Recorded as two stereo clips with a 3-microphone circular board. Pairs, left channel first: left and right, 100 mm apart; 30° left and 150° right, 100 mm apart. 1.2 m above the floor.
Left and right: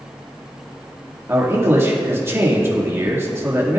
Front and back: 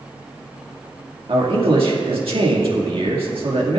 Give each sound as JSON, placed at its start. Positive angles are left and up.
{"t": 1.3, "sound": "a man speaking", "azimuth_deg": -155, "distance_m": 2.0}